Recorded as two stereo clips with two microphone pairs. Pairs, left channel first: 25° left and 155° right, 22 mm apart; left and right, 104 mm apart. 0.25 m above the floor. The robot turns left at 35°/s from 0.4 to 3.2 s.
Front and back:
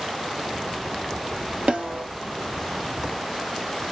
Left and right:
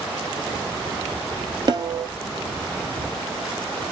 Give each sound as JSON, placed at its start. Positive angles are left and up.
{"t": 1.7, "sound": "a snare drum", "azimuth_deg": -140, "distance_m": 1.6}